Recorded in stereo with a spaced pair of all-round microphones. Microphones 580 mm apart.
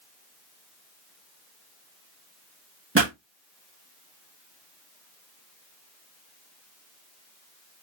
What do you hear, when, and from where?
3.0 s a pop: 20° right (ahead or behind), 1.3 m